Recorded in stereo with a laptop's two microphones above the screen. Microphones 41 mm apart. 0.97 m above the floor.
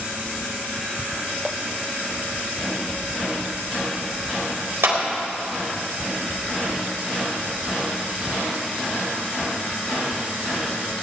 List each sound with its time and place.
4.8 s a clap: 75° right (ahead or behind), 4 m